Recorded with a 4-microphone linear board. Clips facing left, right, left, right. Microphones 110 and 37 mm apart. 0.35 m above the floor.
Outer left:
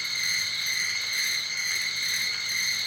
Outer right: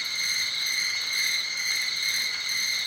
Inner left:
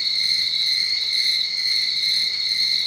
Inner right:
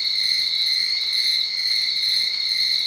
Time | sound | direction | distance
0.0 | an insect | 20° right (ahead or behind) | 2 m